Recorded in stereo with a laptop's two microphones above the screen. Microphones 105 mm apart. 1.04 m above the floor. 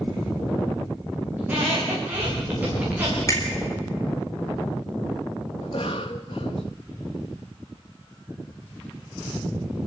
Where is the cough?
60° left (ahead or behind), 1.3 m.